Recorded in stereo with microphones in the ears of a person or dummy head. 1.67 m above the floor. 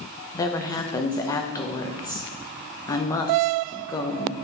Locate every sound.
0.3 s a woman speaking: 25° left (ahead or behind), 0.7 m